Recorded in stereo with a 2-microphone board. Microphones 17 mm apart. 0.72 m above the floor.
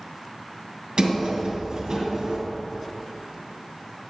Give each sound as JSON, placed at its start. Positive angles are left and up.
{"t": 1.0, "sound": "a sliding door", "side_deg": -60, "distance_m": 1.7}